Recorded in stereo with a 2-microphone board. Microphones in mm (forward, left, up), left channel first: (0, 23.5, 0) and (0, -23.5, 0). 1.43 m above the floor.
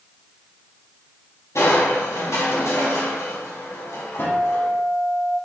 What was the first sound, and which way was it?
Crushing, 70° left (ahead or behind).